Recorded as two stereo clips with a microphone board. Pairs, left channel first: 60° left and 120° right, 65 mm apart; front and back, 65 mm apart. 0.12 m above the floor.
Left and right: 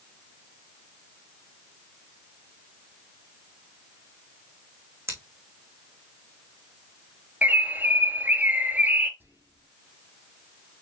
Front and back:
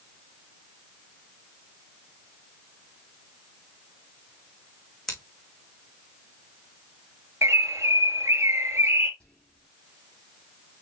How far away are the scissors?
About 3 m.